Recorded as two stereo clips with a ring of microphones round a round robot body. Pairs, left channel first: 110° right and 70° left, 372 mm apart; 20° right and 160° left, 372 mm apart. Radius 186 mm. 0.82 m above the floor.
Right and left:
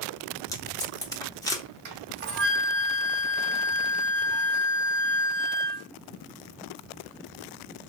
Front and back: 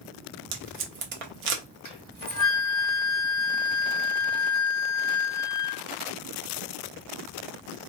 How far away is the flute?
About 1.5 m.